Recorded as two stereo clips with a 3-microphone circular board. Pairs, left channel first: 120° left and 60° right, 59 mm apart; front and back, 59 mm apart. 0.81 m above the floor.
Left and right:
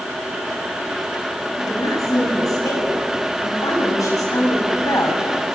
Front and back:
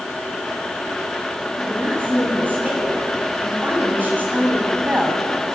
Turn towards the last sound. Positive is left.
turn(degrees=120)